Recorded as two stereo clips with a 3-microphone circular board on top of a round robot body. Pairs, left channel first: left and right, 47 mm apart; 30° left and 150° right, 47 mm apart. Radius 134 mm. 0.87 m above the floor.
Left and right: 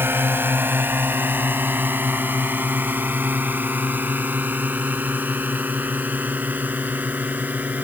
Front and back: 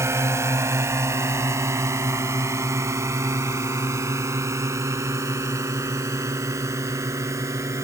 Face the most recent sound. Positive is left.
turn(degrees=-145)